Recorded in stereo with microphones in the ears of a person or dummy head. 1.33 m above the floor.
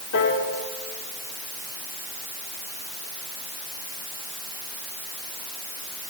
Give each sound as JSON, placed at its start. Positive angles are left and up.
{"t": 0.1, "sound": "a piano", "side_deg": 60, "distance_m": 5.0}